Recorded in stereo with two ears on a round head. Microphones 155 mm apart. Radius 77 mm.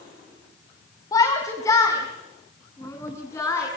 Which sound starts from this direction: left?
A shout, at 1.1 s.